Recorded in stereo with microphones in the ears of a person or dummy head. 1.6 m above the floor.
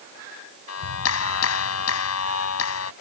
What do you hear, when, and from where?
0.7 s a clap: 90° left